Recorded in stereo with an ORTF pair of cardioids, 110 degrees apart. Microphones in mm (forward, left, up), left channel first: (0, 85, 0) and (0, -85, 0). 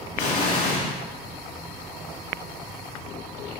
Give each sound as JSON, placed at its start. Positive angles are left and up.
{"t": 0.2, "sound": "an explosion", "azimuth_deg": 55, "distance_m": 1.2}